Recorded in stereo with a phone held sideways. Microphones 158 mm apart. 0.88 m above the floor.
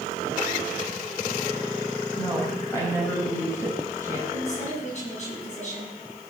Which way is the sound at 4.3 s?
50° left (ahead or behind).